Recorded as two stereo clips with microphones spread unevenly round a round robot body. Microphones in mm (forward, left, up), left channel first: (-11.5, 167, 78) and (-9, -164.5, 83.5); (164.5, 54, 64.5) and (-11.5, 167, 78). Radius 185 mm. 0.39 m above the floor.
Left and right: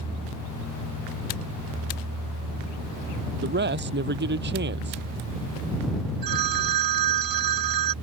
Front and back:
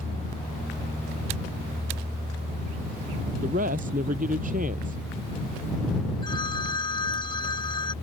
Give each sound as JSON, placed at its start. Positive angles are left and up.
{"t": 3.4, "sound": "a man speaking", "azimuth_deg": -150}
{"t": 6.2, "sound": "a phone ringing", "azimuth_deg": -110}